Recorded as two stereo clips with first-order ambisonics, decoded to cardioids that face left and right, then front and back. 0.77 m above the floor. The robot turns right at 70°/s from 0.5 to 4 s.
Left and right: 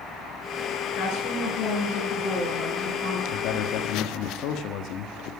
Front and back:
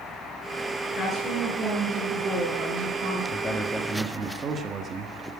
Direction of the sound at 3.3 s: 65° left.